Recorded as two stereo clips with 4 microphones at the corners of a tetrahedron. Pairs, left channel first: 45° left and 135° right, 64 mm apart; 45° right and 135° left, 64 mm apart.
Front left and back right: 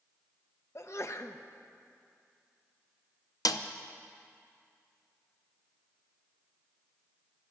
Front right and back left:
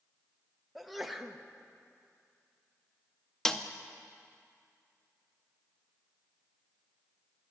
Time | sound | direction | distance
0.8 | a sneeze | 50° left | 0.9 m
3.5 | a snare drum | 35° left | 0.7 m